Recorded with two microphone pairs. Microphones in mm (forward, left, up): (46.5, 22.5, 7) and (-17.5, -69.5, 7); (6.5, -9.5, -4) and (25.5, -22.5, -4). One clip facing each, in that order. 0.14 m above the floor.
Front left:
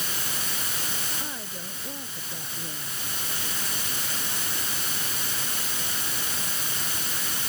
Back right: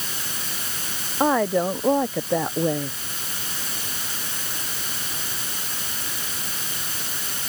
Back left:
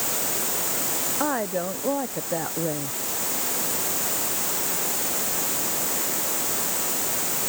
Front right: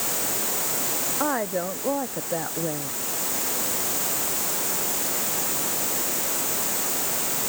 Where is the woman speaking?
115° right; by 3.0 s 125° right.